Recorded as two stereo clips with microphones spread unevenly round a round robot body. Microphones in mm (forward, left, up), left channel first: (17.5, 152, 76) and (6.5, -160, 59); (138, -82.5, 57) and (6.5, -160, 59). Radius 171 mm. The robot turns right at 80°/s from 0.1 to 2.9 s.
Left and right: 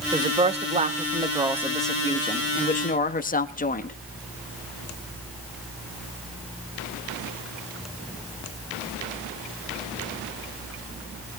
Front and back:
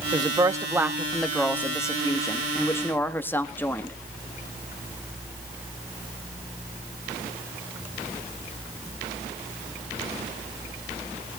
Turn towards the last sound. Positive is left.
turn(degrees=80)